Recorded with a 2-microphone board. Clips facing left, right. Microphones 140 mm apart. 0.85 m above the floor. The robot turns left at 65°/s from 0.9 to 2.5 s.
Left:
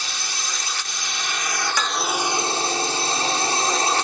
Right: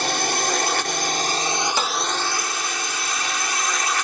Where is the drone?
110° right; by 4.0 s 145° left.